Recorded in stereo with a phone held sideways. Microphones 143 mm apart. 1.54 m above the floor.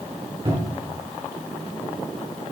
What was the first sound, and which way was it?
A cupboard door, 40° right (ahead or behind).